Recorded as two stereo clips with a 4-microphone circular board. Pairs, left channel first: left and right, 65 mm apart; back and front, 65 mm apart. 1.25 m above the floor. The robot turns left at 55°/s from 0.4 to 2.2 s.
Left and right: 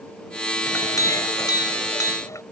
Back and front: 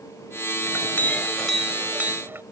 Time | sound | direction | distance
0.7 | a clink | 140° left | ?